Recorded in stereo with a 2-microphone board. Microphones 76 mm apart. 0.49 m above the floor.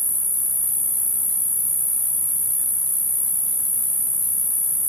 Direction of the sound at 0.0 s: 25° right (ahead or behind).